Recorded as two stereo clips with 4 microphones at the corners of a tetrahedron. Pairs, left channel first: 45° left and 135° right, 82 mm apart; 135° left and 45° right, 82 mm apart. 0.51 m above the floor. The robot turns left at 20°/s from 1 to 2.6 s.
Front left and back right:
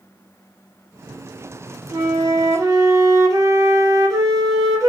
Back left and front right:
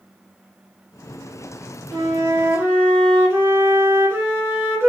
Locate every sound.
1.9 s a flute: 85° right, 1.2 m; by 4.9 s 100° right, 1.2 m